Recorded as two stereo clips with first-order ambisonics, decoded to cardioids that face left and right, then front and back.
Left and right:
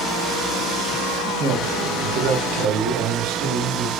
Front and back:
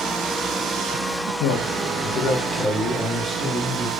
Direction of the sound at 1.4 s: 35° right.